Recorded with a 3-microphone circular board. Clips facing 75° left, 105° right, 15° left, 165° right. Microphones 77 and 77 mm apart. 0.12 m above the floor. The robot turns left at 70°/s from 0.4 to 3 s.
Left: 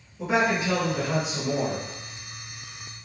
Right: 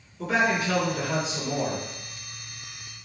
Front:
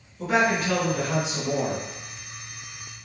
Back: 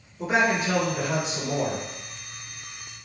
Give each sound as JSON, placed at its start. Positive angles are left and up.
{"t": 0.2, "sound": "a man speaking", "azimuth_deg": 130, "distance_m": 1.8}